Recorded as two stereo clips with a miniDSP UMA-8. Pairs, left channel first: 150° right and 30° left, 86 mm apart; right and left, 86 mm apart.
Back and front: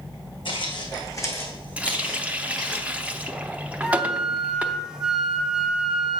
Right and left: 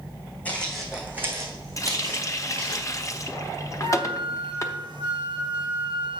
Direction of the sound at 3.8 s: 115° left.